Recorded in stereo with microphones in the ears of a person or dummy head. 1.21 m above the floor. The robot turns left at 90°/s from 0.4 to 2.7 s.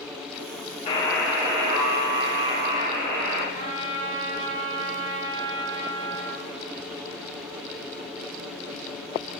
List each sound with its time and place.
0.9 s a buzzer: 35° left, 0.5 m; by 3.4 s 130° right, 0.5 m
3.5 s a trumpet: 65° right (ahead or behind), 1.4 m